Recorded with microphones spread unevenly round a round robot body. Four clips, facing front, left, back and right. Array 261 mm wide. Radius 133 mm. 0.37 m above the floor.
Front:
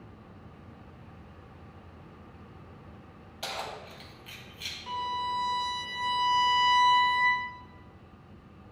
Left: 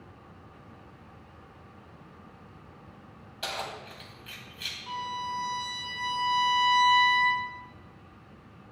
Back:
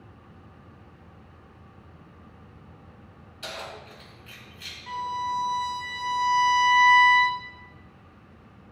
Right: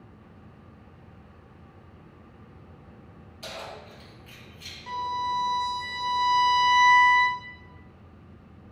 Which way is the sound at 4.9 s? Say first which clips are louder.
Right 5 dB, back 2 dB; 65° right.